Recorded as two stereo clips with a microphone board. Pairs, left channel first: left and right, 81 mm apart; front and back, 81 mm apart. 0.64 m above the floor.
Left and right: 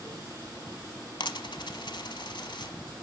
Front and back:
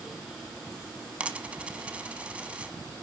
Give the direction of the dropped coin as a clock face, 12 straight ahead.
8 o'clock.